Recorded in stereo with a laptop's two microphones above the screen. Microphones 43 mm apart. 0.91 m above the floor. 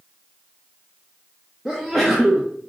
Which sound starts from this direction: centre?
A sneeze, at 1.6 s.